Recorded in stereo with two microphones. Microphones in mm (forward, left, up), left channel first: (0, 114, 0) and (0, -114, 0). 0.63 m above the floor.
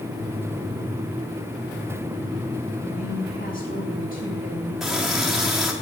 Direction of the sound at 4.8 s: Centre (ahead or behind).